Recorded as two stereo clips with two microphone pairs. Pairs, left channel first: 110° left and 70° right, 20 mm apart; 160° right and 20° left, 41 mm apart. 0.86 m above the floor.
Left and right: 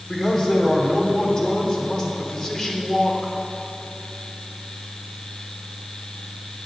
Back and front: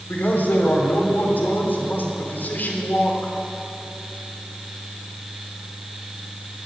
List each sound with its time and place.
0.1 s a man speaking: 165° left, 3 m